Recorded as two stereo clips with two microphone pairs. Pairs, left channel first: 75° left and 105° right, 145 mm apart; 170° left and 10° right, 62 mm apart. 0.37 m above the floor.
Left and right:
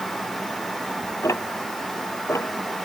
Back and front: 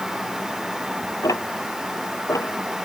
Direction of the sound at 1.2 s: 145° left.